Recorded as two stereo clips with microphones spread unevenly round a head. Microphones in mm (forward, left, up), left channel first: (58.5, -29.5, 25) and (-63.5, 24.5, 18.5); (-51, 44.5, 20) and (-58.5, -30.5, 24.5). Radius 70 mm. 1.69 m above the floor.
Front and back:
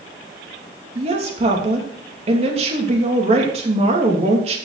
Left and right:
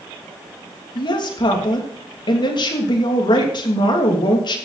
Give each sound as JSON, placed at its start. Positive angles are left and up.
{"t": 0.9, "sound": "a woman speaking", "azimuth_deg": 110, "distance_m": 3.0}